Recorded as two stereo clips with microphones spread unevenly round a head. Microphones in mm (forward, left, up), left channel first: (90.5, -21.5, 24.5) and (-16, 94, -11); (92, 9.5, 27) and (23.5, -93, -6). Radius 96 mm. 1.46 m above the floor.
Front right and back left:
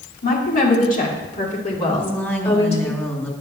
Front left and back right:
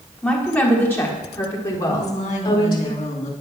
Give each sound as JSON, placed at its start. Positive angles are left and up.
{"t": 0.2, "sound": "a woman speaking", "azimuth_deg": -20, "distance_m": 4.0}
{"t": 1.9, "sound": "a woman speaking", "azimuth_deg": 25, "distance_m": 3.0}